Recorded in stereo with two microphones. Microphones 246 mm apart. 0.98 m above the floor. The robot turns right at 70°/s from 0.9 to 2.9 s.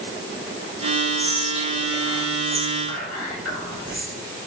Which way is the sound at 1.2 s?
Centre (ahead or behind).